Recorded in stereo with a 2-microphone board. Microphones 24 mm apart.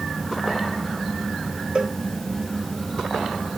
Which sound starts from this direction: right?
A cowbell, at 1.8 s.